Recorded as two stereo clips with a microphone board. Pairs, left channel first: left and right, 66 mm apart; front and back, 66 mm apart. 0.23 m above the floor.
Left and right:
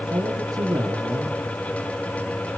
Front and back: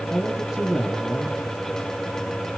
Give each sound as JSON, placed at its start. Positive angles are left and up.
{"t": 0.1, "sound": "a man speaking", "azimuth_deg": -100, "distance_m": 4.0}